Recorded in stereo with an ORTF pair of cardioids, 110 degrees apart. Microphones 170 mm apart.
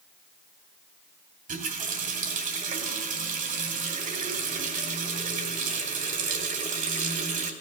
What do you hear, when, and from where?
1.5 s a running tap: 50° right, 2.5 m